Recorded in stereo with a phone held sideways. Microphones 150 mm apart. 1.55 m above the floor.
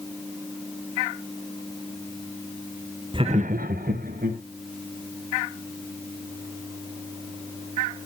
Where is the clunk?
I don't hear a clunk.